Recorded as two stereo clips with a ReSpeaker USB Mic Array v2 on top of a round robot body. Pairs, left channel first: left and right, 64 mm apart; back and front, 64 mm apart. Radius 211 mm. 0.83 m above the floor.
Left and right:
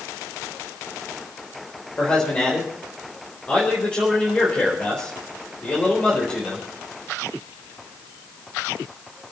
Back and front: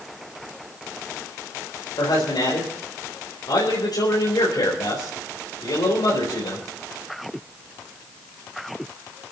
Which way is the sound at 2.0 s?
160° left.